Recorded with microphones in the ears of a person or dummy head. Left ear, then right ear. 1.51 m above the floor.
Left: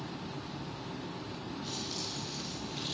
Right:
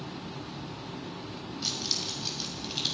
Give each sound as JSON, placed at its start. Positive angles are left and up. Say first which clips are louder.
{"t": 1.6, "sound": "keys jangling", "louder": "right 9 dB", "side_deg": -55, "distance_m": 5.5}